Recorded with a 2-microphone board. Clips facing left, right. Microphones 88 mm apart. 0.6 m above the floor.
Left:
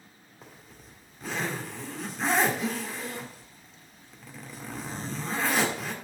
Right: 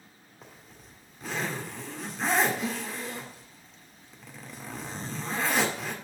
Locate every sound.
0.4 s a zipper: centre (ahead or behind), 1.5 m